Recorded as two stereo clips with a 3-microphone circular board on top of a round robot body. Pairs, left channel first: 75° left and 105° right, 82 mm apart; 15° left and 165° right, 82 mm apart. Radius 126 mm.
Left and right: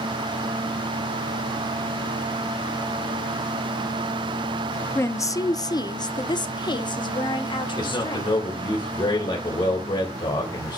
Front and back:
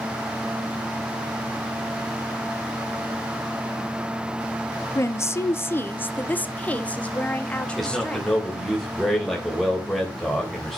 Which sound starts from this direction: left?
A man speaking, at 7.8 s.